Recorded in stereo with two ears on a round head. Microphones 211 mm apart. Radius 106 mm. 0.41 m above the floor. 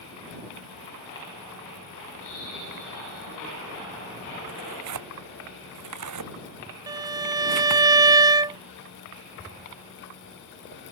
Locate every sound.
4.5 s tearing paper: 90° right
6.9 s a violin: 15° right (ahead or behind)